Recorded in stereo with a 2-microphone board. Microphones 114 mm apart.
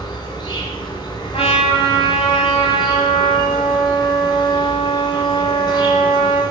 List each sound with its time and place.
0.0 s an insect: 40° left (ahead or behind), 1.4 m
1.3 s a trumpet: 60° left (ahead or behind), 1.8 m